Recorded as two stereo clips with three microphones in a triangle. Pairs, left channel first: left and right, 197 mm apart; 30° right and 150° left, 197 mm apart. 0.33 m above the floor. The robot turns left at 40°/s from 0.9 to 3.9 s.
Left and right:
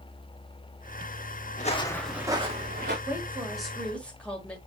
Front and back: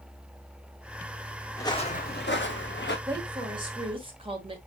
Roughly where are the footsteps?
Ahead left.